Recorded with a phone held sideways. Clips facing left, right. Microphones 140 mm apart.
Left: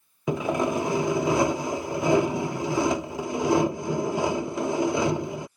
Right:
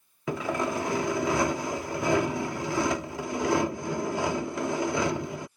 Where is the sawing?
20° left (ahead or behind).